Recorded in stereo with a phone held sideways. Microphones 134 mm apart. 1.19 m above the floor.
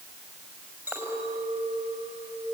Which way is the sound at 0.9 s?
10° right (ahead or behind).